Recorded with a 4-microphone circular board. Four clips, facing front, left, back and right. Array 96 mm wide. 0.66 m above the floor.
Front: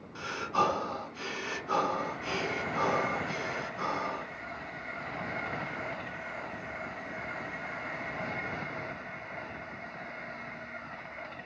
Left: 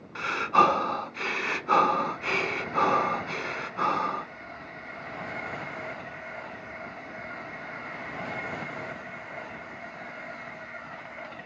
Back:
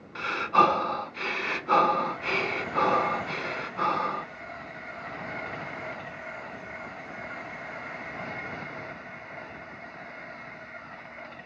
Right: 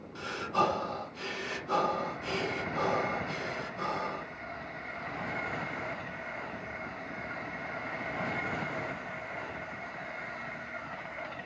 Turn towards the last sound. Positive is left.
turn(degrees=125)